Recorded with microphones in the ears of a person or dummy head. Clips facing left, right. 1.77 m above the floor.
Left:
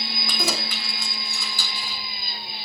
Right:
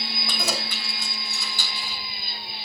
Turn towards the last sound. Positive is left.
turn(degrees=70)  # may be behind; listen again after turning